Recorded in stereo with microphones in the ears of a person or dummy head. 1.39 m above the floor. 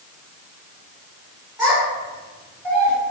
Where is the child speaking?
5° right (ahead or behind), 0.9 m.